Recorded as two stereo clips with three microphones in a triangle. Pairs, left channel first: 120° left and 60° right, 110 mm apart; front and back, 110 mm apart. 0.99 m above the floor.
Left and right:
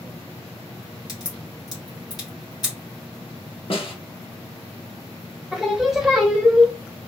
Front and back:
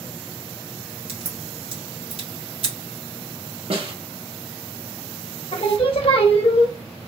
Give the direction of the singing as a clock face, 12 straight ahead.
11 o'clock.